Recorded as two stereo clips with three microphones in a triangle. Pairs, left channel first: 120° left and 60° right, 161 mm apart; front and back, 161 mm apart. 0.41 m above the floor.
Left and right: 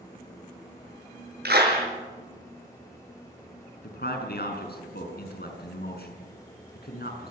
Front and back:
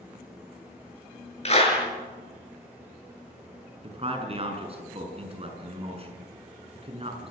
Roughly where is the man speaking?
Behind left.